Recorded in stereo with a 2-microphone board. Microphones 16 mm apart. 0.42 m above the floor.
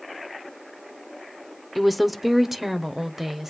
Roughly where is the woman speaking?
Centre.